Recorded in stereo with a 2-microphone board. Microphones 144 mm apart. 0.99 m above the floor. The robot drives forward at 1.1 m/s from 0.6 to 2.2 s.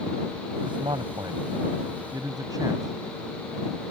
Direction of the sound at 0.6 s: 35° right (ahead or behind).